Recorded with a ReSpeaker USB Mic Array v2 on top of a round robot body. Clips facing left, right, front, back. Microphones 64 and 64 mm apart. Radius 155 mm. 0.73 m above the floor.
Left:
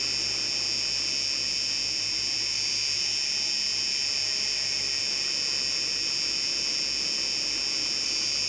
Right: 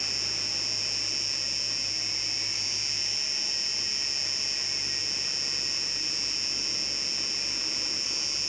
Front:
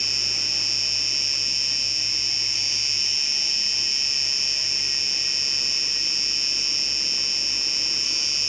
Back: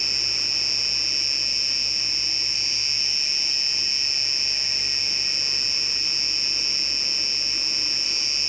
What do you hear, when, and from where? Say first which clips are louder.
0.0 s an insect: left 2 dB, even; 125° left